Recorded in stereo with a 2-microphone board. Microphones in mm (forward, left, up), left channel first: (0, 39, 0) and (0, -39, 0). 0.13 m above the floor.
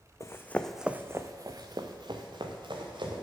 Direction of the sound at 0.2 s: 40° left (ahead or behind).